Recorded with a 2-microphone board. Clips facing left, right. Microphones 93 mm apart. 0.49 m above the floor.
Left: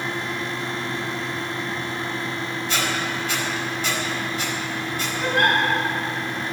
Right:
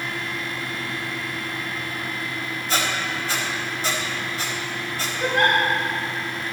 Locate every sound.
2.7 s a squeak: 35° right (ahead or behind), 1.0 m
5.2 s a giggle: 25° right (ahead or behind), 2.0 m